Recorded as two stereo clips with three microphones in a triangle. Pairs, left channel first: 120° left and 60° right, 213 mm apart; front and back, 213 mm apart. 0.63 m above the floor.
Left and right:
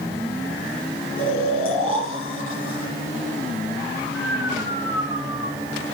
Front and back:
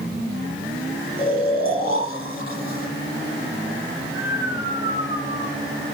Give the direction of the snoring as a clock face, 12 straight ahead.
8 o'clock.